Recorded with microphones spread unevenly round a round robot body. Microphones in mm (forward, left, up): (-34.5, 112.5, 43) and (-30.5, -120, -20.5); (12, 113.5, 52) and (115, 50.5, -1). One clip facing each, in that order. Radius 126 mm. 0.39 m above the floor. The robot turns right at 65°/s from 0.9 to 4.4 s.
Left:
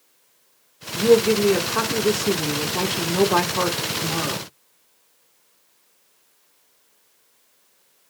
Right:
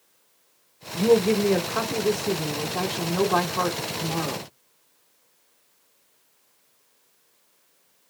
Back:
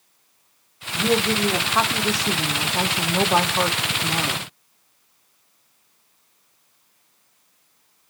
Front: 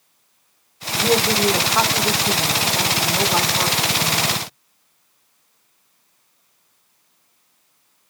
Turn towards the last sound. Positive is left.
turn(degrees=165)